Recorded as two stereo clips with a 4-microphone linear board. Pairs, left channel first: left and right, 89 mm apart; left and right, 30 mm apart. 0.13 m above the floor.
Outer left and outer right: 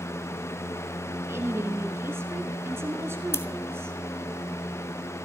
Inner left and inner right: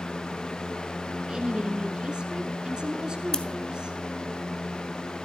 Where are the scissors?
30° left (ahead or behind), 1.0 m.